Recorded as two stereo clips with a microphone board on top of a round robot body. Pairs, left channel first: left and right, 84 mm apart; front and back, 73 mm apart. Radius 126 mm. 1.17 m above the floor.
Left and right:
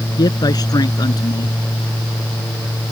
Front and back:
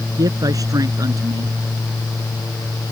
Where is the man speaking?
135° left.